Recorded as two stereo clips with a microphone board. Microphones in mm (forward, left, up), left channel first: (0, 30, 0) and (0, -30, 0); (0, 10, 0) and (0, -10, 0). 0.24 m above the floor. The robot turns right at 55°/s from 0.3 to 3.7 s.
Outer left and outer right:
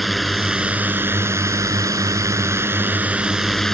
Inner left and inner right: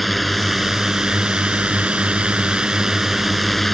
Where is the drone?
Straight behind; by 3.7 s 5° left.